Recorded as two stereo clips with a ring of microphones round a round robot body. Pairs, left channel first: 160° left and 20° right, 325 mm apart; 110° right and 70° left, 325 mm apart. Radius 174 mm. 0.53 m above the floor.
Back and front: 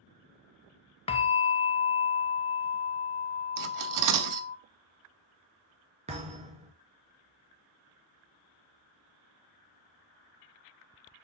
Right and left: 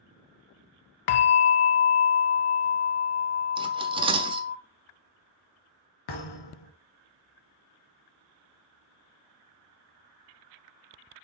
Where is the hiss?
I don't hear a hiss.